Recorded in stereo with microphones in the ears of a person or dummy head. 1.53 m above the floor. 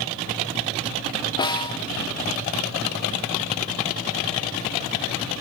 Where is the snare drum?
20° left (ahead or behind), 0.8 m.